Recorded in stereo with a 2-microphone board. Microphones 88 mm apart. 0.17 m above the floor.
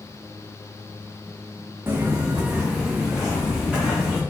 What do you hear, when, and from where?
1.9 s footsteps: 25° right (ahead or behind), 0.7 m; by 4.2 s centre (ahead or behind), 1.8 m